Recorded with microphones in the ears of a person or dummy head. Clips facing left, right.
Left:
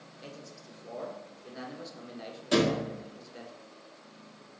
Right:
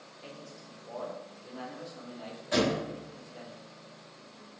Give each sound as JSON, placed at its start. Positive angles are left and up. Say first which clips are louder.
{"t": 0.2, "sound": "a man speaking", "louder": "even", "side_deg": 25, "distance_m": 1.0}
{"t": 2.5, "sound": "a thud", "louder": "left 2 dB", "side_deg": 55, "distance_m": 1.1}